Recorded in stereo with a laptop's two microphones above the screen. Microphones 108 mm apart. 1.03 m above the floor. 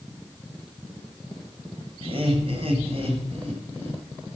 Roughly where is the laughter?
Right.